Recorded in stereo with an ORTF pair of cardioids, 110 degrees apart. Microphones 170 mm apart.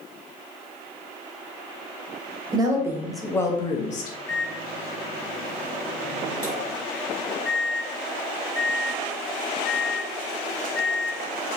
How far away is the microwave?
About 1.5 m.